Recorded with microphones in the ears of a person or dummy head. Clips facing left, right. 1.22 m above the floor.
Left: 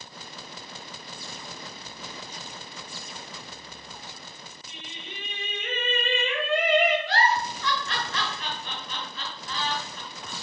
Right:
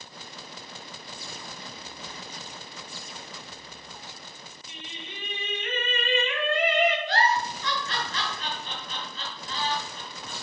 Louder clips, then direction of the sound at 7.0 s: Even; 55° left (ahead or behind).